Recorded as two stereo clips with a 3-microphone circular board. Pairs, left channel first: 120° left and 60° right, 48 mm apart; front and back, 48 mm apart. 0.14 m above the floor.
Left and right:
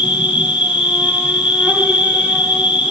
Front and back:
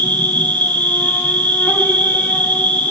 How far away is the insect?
About 2.5 m.